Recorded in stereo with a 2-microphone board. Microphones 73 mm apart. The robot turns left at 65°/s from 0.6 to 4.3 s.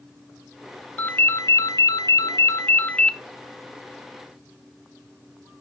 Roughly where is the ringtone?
Behind left.